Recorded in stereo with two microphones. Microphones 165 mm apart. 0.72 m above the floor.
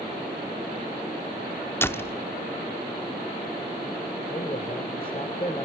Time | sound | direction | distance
1.8 | a door slam | 15° left (ahead or behind) | 0.9 m
4.3 | a man speaking | 35° left (ahead or behind) | 3 m